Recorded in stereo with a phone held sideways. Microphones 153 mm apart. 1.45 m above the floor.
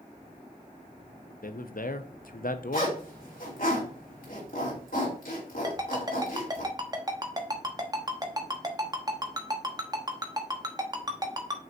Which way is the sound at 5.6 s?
25° right (ahead or behind).